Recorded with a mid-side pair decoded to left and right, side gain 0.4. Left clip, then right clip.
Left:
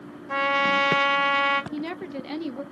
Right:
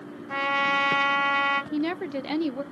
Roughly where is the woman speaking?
Ahead right.